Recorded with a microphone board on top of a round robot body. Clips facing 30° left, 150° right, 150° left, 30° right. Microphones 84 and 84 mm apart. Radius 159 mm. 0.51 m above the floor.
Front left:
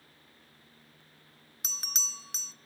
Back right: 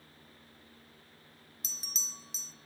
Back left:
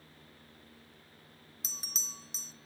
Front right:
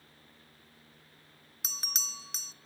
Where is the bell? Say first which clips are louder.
Front left 6 dB, front right 6 dB; straight ahead, 0.7 m.